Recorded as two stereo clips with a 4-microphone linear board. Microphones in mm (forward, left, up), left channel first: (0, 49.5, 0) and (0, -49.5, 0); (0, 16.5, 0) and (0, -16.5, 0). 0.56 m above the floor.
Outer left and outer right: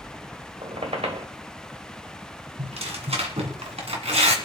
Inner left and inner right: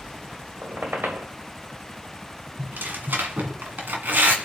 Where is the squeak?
80° right, 1.4 m.